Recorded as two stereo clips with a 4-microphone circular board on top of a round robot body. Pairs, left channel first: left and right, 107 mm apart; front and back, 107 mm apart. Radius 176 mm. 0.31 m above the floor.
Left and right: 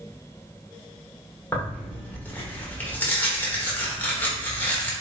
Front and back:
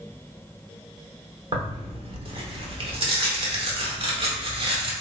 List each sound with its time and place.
1.5 s tearing paper: 160° left, 1.2 m